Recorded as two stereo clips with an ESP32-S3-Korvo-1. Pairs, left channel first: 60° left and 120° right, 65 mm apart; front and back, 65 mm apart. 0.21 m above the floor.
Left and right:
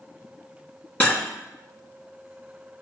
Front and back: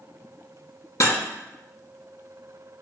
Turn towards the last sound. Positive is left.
turn(degrees=0)